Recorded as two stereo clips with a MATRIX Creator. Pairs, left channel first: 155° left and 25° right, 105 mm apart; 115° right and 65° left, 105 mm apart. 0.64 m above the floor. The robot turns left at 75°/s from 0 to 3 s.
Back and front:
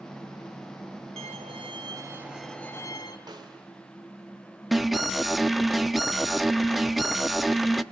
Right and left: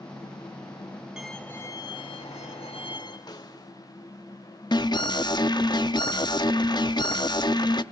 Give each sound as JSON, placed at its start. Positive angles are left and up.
{"t": 1.2, "sound": "a violin", "azimuth_deg": -15, "distance_m": 3.5}
{"t": 3.3, "sound": "a snare drum", "azimuth_deg": -65, "distance_m": 3.0}
{"t": 4.7, "sound": "an alarm", "azimuth_deg": -110, "distance_m": 0.8}